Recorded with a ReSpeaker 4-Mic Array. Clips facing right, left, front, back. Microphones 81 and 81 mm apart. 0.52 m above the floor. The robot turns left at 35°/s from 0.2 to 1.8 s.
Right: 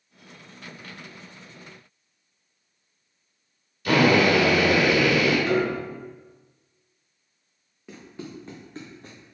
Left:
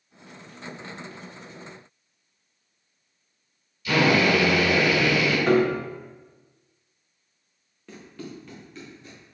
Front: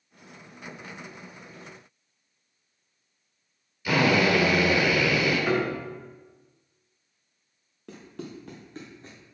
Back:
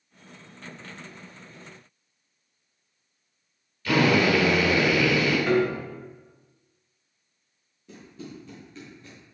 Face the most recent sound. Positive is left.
turn(degrees=-60)